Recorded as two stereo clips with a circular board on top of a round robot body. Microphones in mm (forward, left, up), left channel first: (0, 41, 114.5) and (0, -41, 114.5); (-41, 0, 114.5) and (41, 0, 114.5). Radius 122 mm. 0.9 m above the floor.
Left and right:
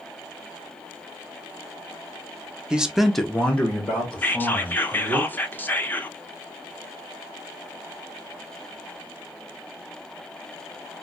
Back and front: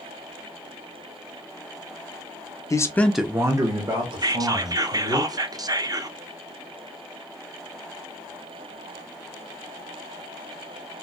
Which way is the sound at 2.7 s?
165° right.